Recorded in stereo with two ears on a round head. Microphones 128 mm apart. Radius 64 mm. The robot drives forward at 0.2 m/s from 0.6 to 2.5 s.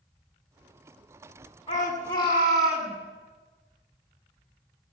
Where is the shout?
25° left (ahead or behind), 8 m.